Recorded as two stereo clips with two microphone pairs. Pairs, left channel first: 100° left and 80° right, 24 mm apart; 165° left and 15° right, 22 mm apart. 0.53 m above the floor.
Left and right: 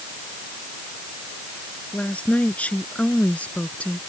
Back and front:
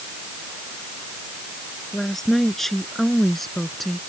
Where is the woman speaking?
95° left; by 4.0 s 85° left.